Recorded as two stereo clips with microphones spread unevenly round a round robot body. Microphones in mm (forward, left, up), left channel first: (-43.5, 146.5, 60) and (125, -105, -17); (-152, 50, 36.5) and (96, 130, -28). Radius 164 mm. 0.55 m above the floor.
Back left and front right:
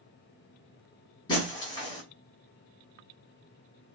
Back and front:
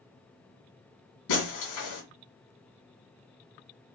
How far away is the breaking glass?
About 2.5 m.